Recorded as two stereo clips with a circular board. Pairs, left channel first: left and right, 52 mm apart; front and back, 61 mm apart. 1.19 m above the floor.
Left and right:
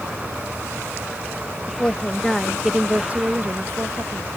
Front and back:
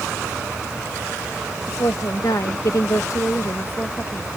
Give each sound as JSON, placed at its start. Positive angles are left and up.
{"t": 1.7, "sound": "a woman speaking", "azimuth_deg": 30}